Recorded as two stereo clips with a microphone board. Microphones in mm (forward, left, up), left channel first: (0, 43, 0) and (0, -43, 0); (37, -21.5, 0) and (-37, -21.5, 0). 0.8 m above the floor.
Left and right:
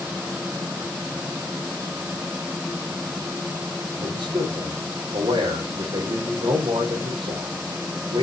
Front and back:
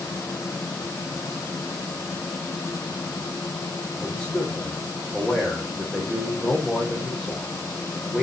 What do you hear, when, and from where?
4.0 s a man speaking: 90° right, 3.5 m